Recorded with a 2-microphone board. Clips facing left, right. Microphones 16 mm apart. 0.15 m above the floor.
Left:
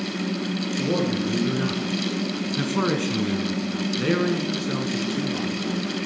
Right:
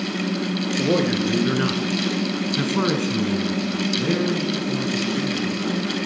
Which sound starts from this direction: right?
A man speaking, at 0.8 s.